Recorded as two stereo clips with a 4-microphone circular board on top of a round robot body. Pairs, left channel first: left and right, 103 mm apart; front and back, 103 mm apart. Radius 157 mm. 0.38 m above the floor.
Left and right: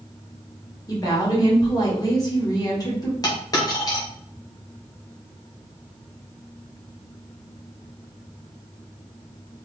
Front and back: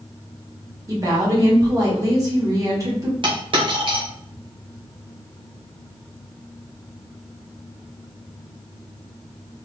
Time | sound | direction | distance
0.9 | a woman speaking | 135° left | 1.6 m
3.2 | a dropped coin | 145° left | 1.2 m